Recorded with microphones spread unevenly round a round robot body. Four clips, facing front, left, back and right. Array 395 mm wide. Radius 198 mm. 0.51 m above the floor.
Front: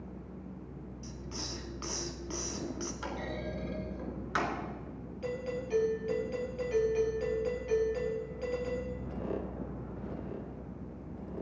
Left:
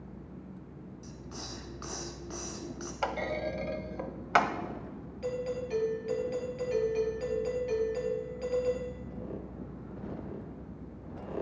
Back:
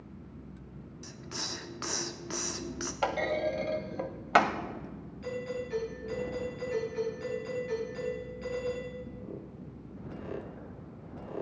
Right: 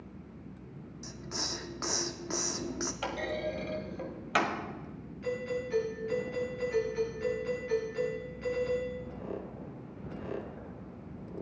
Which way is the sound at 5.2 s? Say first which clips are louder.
Even, even; 50° left.